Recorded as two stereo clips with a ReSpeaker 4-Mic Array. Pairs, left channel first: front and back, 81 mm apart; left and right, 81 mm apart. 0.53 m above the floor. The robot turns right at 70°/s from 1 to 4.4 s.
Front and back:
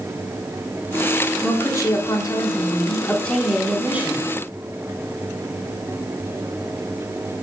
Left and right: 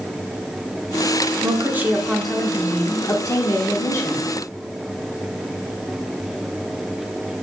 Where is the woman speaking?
60° right, 0.9 m; by 4.3 s 140° left, 0.9 m.